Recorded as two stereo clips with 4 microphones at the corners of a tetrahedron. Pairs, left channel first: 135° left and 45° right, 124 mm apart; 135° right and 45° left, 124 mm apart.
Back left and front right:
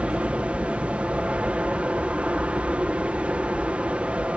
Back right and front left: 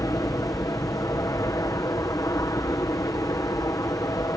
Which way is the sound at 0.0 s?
115° right.